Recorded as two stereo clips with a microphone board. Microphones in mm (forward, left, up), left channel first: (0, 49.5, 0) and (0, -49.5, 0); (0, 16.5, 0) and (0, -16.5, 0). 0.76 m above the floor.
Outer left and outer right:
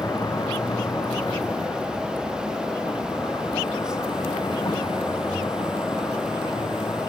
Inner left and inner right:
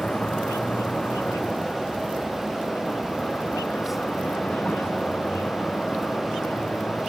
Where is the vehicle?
35° left (ahead or behind); by 7.1 s 50° left (ahead or behind).